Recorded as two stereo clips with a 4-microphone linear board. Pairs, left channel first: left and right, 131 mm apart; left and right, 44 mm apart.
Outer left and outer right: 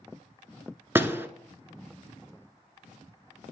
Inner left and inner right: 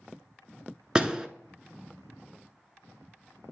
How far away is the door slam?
About 0.7 m.